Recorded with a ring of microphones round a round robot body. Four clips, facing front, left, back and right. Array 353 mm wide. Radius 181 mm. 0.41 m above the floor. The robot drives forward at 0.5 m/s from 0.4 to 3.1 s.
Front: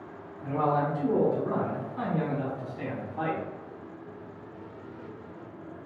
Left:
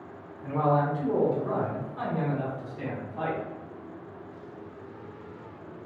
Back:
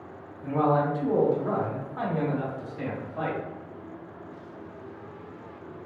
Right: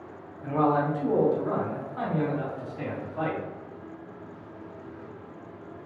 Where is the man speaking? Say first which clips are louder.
Right 1 dB, back 3 dB; 100° right, 1.0 m; by 3.4 s 160° right, 1.8 m.